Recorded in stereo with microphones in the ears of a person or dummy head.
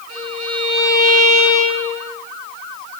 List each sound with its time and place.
0.1 s a violin: 85° right, 5 m